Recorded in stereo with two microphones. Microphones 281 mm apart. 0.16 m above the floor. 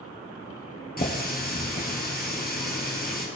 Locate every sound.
1.0 s a running tap: 35° left (ahead or behind), 2.0 m